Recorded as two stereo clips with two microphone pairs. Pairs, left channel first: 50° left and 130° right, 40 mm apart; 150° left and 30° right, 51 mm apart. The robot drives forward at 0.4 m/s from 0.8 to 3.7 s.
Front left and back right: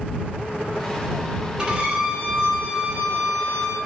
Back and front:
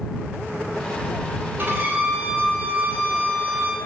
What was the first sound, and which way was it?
A violin, 65° right.